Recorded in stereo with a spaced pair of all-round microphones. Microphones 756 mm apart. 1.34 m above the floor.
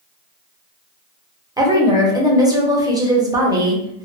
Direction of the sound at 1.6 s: 5° right (ahead or behind).